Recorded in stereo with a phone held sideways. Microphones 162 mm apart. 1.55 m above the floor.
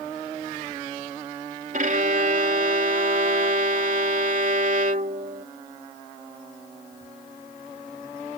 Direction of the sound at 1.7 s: 60° right (ahead or behind).